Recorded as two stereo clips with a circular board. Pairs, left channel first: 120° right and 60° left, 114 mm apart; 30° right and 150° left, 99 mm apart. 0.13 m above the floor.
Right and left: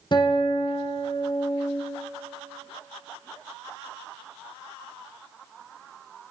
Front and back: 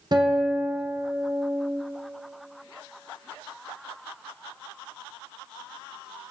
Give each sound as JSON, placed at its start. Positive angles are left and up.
{"t": 0.1, "sound": "a guitar", "azimuth_deg": -165, "distance_m": 1.6}